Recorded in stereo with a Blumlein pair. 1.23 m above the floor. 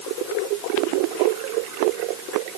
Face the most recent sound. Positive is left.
No sound to turn to.